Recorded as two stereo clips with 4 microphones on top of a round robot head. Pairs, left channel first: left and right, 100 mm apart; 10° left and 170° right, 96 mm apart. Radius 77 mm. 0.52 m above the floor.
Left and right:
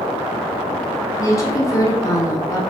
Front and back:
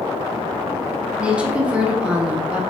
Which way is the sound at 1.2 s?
120° left.